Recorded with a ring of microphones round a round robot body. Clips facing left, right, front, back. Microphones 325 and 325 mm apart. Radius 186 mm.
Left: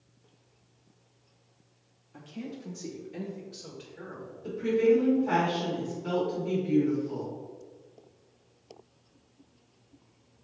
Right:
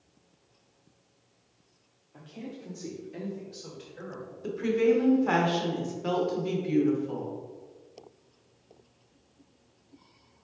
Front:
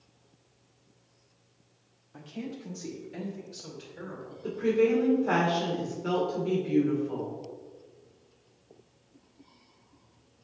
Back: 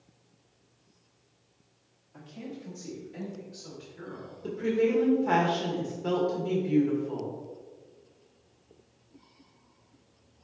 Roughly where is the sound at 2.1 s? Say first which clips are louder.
Left 2 dB, front 3 dB; ahead left.